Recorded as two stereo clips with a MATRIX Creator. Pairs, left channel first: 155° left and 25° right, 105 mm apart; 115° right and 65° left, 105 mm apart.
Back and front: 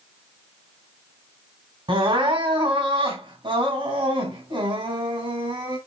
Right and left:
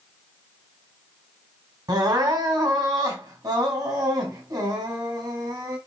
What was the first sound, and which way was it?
Crying, 15° left.